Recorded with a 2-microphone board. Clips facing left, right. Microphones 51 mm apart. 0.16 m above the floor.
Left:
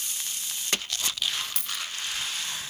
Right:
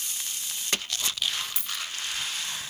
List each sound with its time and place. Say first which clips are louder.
1.6 s a dropped coin: even; 70° left (ahead or behind), 0.7 m